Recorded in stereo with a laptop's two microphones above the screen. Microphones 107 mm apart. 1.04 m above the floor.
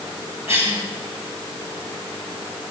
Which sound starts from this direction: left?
A cough, at 0.5 s.